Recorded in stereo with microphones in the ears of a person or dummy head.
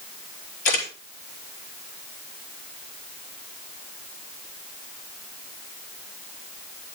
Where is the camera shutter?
65° left (ahead or behind), 4.5 m.